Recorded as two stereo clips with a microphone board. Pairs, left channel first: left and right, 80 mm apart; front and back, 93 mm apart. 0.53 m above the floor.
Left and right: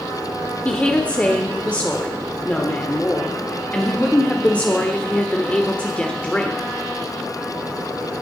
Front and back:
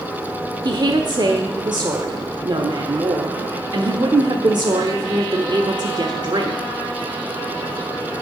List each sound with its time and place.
0.7 s a woman speaking: 160° left, 1.2 m